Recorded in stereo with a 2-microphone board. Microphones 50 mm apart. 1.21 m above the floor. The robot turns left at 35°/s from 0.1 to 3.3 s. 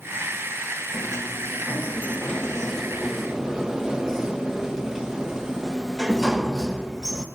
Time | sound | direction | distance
0.9 | a sliding door | 70° left | 0.9 m